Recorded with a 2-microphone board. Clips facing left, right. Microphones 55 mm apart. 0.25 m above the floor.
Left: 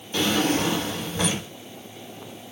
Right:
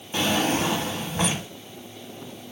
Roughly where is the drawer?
Right.